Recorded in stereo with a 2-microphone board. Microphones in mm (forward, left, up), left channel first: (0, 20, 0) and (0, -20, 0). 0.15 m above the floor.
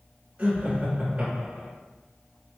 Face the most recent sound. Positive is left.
turn(degrees=-30)  # may be behind; listen again after turning